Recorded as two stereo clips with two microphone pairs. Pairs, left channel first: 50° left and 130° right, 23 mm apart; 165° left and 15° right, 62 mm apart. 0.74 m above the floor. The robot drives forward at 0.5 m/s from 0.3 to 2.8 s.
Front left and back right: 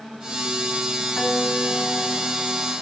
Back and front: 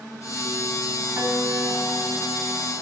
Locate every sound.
1.2 s a guitar: 40° left, 5 m; by 2.7 s 45° left, 4.5 m